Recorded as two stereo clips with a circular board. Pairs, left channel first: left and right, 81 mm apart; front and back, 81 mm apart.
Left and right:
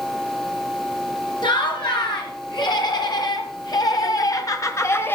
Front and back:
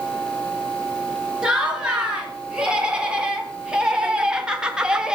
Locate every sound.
1.4 s laughter: 100° left, 4 m; by 5.2 s 110° left, 1.2 m